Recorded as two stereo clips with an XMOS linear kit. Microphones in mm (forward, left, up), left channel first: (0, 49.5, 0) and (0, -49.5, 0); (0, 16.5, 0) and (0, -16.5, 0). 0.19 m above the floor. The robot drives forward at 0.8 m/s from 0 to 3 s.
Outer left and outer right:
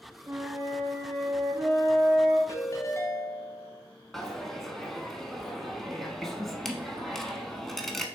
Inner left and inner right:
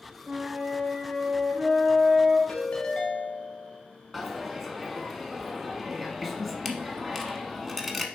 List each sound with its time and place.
0.3 s a flute: 35° right (ahead or behind), 1.7 m; by 2.4 s 20° right (ahead or behind), 3 m
2.5 s a ringtone: 35° left (ahead or behind), 0.8 m; by 3.8 s 30° left (ahead or behind), 0.9 m
4.1 s a dropped coin: centre (ahead or behind), 0.9 m